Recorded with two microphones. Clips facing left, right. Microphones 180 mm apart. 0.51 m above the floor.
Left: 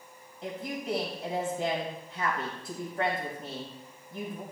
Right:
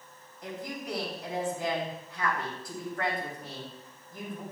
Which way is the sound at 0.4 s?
25° left (ahead or behind).